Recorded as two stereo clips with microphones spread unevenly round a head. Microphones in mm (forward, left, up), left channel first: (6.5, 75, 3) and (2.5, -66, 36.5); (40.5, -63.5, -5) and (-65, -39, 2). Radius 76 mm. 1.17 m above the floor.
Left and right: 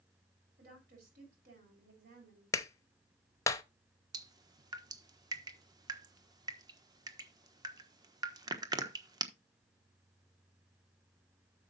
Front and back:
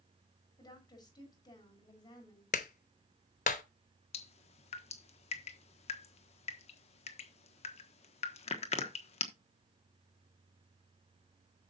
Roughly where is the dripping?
Ahead right.